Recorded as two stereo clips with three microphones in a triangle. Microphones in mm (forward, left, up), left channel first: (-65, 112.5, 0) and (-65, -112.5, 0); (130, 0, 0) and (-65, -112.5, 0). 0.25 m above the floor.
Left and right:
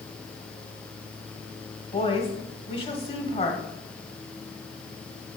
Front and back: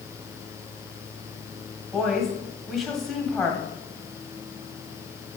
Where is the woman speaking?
120° left, 1.6 m.